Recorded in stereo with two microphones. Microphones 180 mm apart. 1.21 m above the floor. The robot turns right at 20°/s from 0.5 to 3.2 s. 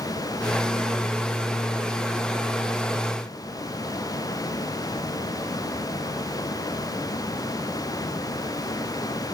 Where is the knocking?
No knocking in this recording.